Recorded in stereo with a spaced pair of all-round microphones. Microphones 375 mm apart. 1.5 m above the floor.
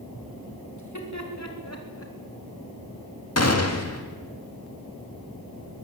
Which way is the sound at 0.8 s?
50° left (ahead or behind).